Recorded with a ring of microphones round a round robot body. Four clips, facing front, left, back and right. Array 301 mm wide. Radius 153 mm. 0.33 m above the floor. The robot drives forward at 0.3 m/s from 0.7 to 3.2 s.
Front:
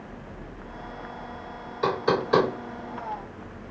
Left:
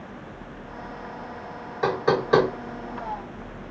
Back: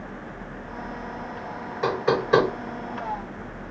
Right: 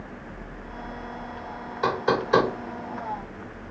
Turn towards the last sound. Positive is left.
turn(degrees=115)